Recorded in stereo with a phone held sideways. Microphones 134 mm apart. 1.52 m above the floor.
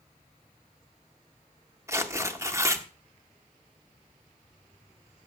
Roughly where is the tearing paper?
Centre.